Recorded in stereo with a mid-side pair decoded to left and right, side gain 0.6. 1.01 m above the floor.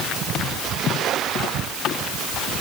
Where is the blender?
No blender in this recording.